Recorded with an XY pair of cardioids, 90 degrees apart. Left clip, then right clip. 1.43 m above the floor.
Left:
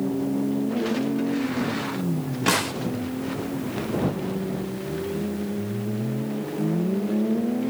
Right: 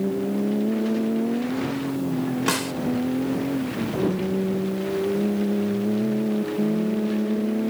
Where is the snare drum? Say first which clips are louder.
Left 4 dB; straight ahead.